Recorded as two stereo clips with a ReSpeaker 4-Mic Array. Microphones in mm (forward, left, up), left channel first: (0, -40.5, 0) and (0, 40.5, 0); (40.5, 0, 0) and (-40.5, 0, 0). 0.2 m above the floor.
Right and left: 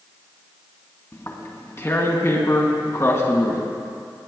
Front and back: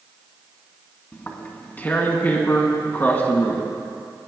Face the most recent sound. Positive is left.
turn(degrees=-55)